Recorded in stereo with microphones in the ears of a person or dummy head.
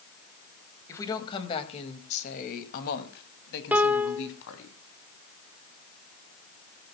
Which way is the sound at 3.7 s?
5° right (ahead or behind).